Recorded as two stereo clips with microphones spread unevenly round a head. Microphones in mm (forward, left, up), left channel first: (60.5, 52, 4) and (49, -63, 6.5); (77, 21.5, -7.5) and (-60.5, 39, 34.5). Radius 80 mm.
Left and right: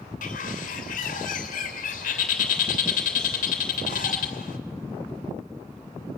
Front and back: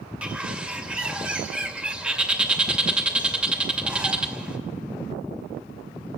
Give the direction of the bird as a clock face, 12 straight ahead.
9 o'clock.